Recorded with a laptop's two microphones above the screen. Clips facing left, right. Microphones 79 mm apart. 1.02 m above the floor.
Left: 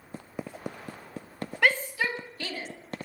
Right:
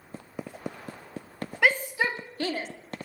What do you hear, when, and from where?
1.6 s a shout: 5° right (ahead or behind), 1.5 m; by 2.7 s 45° right (ahead or behind), 2.0 m